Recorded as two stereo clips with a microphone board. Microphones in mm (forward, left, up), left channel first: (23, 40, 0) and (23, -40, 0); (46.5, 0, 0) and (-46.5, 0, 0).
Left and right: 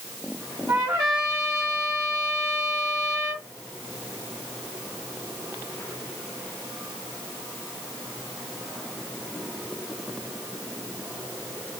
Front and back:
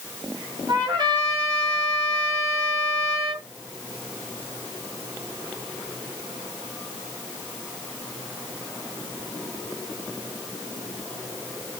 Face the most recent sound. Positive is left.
turn(degrees=-140)